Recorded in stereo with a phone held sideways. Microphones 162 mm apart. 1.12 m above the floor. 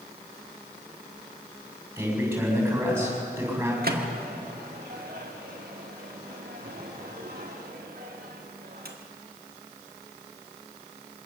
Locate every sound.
2.0 s a man speaking: 15° right (ahead or behind), 7 m
3.8 s a microwave: 70° right (ahead or behind), 2.0 m